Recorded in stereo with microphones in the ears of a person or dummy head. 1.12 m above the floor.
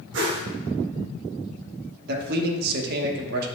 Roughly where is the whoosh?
Right.